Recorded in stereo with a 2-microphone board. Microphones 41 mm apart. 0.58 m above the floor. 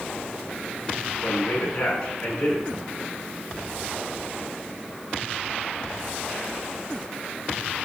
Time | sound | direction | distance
1.2 | a man speaking | 50° left (ahead or behind) | 5.5 m